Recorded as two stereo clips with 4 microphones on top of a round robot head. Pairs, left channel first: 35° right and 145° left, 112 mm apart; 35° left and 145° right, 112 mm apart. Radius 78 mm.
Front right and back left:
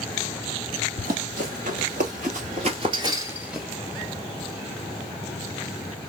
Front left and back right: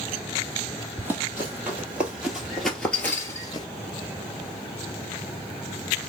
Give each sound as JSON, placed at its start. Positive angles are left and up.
{"t": 1.0, "sound": "running footsteps", "azimuth_deg": 145, "distance_m": 1.6}